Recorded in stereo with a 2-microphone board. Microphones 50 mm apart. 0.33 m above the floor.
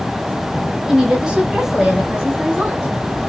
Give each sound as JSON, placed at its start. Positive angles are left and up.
{"t": 0.9, "sound": "a woman speaking", "side_deg": -10, "distance_m": 1.1}